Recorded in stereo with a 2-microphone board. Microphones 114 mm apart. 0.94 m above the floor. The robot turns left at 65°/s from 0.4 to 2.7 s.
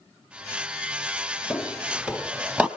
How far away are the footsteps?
About 1.4 m.